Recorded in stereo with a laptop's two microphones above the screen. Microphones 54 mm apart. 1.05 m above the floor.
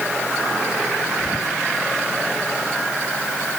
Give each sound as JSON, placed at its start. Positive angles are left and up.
{"t": 1.2, "sound": "whispering", "side_deg": 0, "distance_m": 2.0}